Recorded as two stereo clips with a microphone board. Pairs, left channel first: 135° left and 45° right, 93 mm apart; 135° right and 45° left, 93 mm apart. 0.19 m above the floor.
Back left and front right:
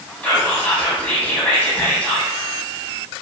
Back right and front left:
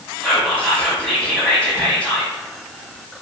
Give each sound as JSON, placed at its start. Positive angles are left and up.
{"t": 0.2, "sound": "whispering", "azimuth_deg": 175, "distance_m": 1.0}